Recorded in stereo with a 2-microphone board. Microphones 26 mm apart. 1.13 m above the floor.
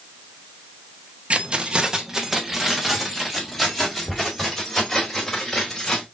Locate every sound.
1.3 s keys jangling: 50° right (ahead or behind), 0.7 m; by 6.0 s 15° left (ahead or behind), 3 m